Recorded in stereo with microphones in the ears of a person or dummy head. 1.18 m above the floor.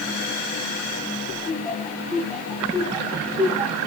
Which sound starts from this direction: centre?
Laughter, at 1.4 s.